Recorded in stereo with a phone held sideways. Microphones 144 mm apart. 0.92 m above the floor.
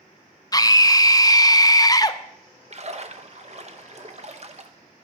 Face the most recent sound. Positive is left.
turn(degrees=-50)  # may be behind; listen again after turning